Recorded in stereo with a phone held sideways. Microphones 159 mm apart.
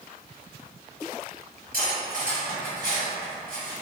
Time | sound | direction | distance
1.7 | cutlery clinking | 60° right (ahead or behind) | 1.3 m